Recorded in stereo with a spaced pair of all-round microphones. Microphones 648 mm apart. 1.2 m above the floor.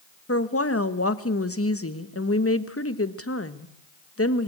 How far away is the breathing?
No breathing in this recording.